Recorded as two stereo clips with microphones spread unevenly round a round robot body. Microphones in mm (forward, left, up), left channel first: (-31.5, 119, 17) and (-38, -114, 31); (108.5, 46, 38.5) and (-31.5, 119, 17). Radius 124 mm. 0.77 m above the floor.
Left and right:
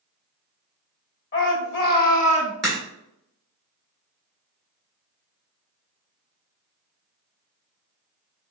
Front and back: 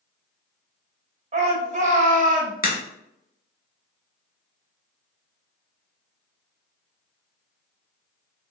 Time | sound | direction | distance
1.3 | a shout | 120° left | 1.6 m
2.6 | a crack | straight ahead | 1.6 m